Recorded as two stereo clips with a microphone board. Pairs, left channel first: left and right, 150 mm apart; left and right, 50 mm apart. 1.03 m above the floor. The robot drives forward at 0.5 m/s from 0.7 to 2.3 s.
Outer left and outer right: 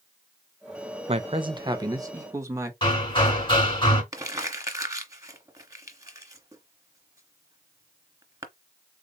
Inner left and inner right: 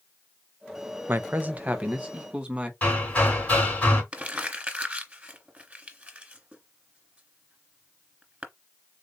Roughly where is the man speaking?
Right.